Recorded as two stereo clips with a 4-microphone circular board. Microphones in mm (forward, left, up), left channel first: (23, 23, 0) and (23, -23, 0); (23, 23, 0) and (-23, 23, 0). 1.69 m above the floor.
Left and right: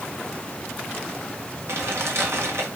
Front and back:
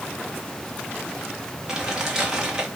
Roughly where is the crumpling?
Right.